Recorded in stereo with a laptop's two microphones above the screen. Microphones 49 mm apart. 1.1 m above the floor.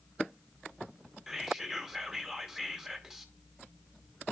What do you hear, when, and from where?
1.3 s whispering: 10° right (ahead or behind), 2 m